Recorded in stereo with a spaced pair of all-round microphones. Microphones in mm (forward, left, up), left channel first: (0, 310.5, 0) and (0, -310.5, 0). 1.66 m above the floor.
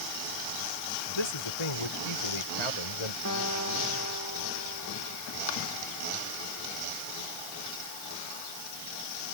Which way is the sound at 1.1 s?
45° left (ahead or behind).